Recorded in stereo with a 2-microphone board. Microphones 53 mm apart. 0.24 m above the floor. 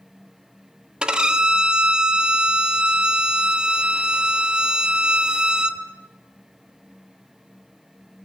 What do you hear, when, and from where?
1.0 s a violin: 15° right (ahead or behind), 1.5 m